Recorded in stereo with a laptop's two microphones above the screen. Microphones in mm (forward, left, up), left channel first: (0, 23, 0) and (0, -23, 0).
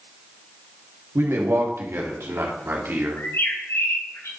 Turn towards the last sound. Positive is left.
turn(degrees=75)  # may be behind; listen again after turning